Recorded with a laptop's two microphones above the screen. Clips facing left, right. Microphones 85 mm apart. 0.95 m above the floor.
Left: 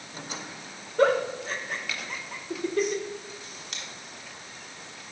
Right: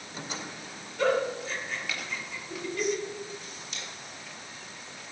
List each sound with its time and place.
1.0 s a giggle: 50° left (ahead or behind), 0.8 m
3.7 s scissors: 80° left, 1.9 m